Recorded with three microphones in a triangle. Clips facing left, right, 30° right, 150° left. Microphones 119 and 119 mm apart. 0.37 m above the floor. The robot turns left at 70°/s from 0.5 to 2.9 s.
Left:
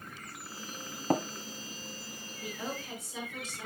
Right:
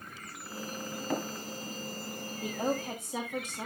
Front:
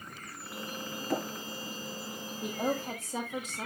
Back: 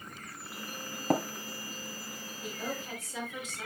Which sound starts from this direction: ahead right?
A woman speaking, at 2.4 s.